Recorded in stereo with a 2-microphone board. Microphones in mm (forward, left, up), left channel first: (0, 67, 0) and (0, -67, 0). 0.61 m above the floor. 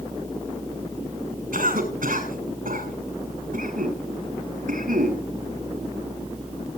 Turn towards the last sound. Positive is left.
turn(degrees=-80)